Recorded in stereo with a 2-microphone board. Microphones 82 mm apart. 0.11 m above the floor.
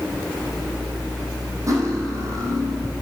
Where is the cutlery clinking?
40° right (ahead or behind), 2 m.